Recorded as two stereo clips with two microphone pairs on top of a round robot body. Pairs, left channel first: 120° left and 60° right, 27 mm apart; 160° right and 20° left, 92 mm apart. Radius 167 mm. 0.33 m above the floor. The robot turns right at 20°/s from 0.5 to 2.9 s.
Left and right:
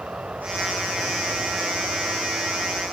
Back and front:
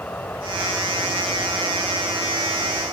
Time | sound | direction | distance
0.0 | an insect | 90° right | ?